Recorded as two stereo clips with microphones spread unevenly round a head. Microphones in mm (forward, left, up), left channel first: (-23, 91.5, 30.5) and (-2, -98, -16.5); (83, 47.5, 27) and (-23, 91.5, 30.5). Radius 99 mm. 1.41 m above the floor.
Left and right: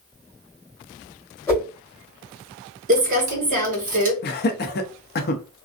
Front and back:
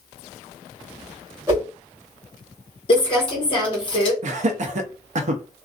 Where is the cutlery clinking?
No cutlery clinking in this recording.